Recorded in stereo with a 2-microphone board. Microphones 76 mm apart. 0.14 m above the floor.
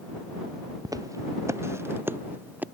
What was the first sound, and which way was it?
Footsteps, 50° right (ahead or behind).